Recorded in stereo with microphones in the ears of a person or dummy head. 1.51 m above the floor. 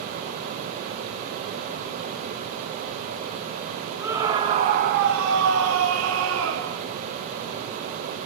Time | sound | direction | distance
4.0 | a scream | 15° right (ahead or behind) | 1.9 m